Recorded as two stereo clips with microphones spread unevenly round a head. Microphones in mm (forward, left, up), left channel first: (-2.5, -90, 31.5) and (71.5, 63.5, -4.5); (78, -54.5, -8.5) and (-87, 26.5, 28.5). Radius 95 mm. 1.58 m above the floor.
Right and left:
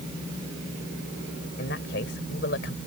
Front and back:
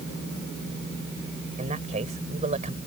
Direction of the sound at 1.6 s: 155° right.